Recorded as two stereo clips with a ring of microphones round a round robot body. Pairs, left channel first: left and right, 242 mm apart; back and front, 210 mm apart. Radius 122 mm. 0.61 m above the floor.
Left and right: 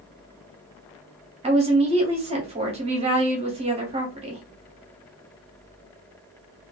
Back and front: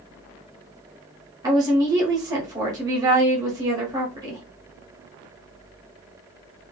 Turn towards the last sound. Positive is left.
turn(degrees=-55)